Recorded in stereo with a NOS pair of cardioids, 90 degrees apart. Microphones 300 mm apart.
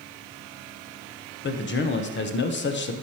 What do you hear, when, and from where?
1.4 s a man speaking: 40° left, 1.0 m